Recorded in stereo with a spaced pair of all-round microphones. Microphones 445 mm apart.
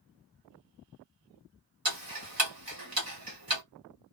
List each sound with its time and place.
1.9 s ticking: 50° right (ahead or behind), 1.1 m